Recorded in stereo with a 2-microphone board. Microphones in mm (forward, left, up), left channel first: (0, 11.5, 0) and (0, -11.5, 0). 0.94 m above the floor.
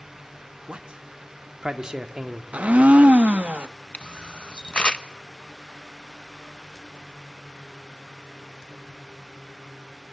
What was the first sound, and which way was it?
A man speaking, 55° right (ahead or behind).